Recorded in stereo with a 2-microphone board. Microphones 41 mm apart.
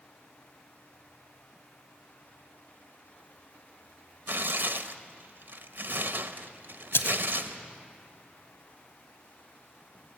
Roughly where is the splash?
Left.